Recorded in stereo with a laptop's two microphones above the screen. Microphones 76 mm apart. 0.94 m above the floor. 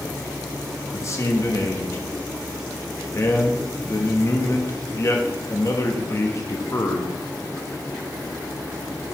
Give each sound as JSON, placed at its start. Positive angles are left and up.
{"t": 0.9, "sound": "a man speaking", "side_deg": 40, "distance_m": 0.9}